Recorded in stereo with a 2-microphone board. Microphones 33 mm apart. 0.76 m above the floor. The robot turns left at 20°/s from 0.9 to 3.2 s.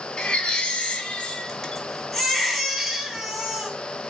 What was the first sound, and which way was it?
A baby crying, 35° left.